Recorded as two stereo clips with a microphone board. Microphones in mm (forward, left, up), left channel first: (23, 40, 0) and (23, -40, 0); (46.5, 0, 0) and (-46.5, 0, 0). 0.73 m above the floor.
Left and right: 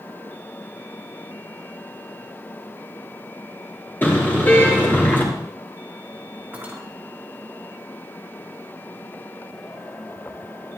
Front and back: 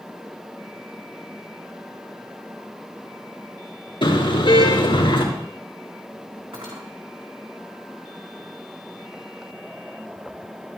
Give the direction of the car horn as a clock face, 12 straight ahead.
11 o'clock.